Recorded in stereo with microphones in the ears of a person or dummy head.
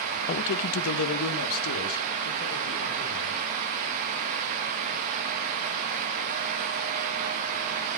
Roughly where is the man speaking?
Left.